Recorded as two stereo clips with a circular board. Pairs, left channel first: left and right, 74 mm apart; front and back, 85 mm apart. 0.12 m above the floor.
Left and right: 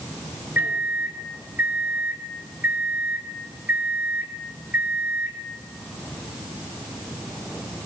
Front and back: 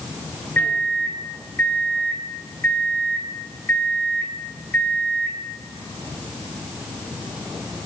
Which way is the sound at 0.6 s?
50° right.